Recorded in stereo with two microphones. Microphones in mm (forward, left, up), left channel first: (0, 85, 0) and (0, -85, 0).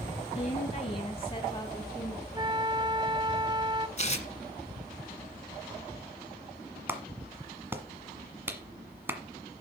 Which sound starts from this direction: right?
A flute, at 2.3 s.